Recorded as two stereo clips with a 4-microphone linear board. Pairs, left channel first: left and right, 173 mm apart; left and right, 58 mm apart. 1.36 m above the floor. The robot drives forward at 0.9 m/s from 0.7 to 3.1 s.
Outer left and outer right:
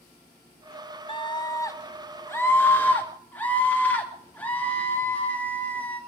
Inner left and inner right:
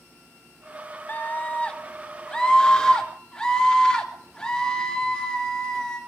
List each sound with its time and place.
1.1 s a scream: 30° left (ahead or behind), 0.9 m; by 6.0 s 10° left (ahead or behind), 2.5 m